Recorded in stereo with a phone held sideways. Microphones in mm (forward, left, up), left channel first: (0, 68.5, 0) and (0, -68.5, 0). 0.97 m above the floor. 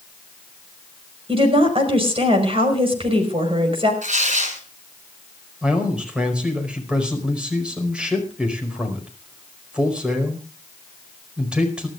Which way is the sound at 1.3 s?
40° right (ahead or behind).